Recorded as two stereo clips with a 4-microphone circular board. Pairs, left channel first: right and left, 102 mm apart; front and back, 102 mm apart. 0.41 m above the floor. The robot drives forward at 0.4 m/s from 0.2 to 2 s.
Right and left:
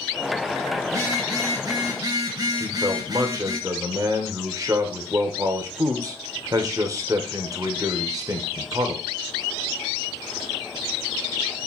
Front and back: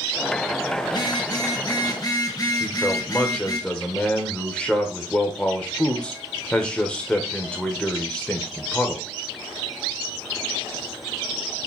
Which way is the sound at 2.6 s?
70° left.